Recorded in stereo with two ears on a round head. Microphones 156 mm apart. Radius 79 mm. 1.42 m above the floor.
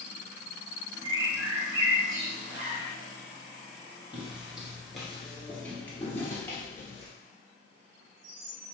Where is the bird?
85° right, 1.3 m.